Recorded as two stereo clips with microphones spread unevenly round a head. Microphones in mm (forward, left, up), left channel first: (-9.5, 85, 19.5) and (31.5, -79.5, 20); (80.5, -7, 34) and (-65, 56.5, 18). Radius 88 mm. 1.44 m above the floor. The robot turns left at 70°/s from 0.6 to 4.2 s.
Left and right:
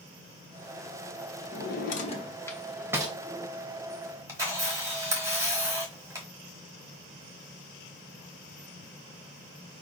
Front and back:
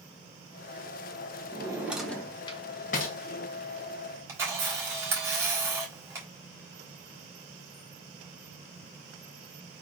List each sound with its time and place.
1.5 s a drawer: 100° left, 1.0 m; by 3.1 s 15° right, 1.0 m
4.3 s a camera shutter: 135° right, 1.4 m